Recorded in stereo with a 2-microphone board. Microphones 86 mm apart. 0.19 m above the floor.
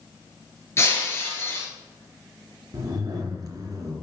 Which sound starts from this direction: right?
A zipper, at 2.7 s.